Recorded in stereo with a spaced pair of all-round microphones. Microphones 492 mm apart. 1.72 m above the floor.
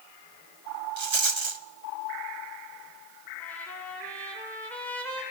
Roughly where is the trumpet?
Centre.